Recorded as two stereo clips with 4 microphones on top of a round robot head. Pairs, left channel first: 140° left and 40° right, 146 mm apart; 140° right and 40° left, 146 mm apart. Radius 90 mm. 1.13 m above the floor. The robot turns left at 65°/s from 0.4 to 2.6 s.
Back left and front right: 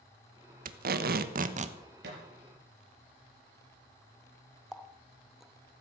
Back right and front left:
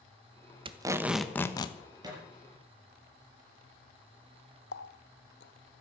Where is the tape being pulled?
15° right, 1.2 m; by 1.8 s 85° right, 1.2 m.